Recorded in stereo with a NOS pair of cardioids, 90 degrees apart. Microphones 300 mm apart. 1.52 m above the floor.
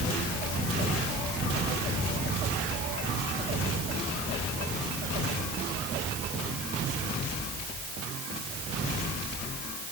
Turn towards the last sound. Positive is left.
No sound to turn to.